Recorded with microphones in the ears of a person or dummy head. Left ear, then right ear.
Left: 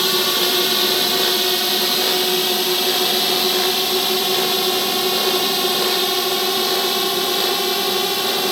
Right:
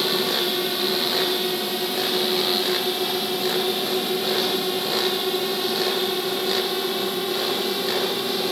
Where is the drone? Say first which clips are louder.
Left 5 dB; 35° left (ahead or behind).